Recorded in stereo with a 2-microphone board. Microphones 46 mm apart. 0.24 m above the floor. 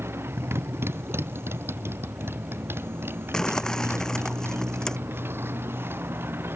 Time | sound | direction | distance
0.0 | a motorcycle | 60° right (ahead or behind) | ?
3.3 | crumpling | 15° left (ahead or behind) | ?